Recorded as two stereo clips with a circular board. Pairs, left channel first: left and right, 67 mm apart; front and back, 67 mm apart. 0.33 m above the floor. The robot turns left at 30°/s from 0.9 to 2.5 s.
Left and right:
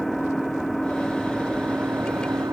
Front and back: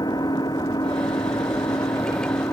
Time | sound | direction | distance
0.0 | an engine running | straight ahead | ?